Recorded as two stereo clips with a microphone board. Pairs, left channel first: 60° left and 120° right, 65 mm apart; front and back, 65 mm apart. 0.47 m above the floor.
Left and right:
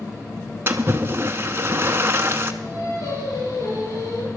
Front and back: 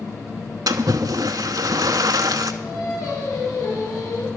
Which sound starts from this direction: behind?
A splash, at 0.7 s.